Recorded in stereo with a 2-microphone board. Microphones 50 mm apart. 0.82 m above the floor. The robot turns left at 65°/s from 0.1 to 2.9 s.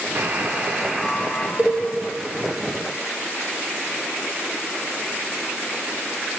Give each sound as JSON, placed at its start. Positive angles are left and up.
{"t": 0.1, "sound": "a buzzer", "azimuth_deg": -115, "distance_m": 0.5}
{"t": 1.6, "sound": "a cowbell", "side_deg": -30, "distance_m": 0.7}